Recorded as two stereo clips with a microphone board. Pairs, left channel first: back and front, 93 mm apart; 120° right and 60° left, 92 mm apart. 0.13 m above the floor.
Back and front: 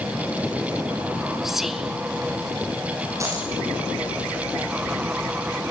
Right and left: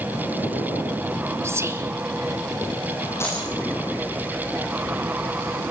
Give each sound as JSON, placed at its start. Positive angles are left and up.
{"t": 1.4, "sound": "whispering", "azimuth_deg": 85, "distance_m": 1.2}
{"t": 3.2, "sound": "a dropped coin", "azimuth_deg": -55, "distance_m": 9.5}